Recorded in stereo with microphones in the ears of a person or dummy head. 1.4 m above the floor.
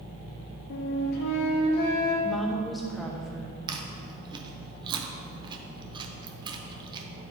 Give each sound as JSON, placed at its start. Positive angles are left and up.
{"t": 0.7, "sound": "a flute", "side_deg": 60, "distance_m": 1.3}
{"t": 2.2, "sound": "a woman speaking", "side_deg": 0, "distance_m": 1.0}
{"t": 3.7, "sound": "chewing", "side_deg": -25, "distance_m": 0.7}